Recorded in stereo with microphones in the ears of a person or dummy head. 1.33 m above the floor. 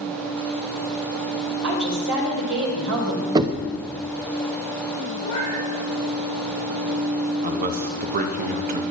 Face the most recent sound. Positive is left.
turn(degrees=-40)  # may be behind; listen again after turning